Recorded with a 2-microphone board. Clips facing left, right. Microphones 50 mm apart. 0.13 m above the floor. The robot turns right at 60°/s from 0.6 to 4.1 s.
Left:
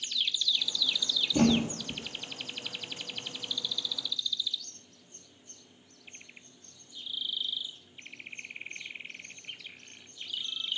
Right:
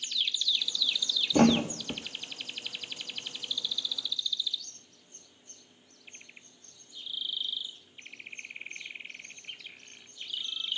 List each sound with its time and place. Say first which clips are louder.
1.3 s a thud: right 3 dB; 55° right (ahead or behind), 1.5 m; by 2.0 s 80° right, 1.5 m